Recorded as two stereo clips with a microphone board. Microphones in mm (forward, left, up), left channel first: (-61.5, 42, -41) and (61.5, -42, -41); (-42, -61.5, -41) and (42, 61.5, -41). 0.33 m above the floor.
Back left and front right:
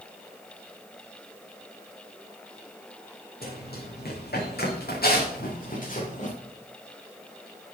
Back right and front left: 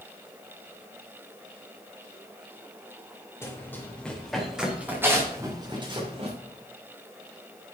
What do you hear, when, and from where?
3.4 s running footsteps: 160° left, 4.5 m; by 6.3 s 105° left, 4.5 m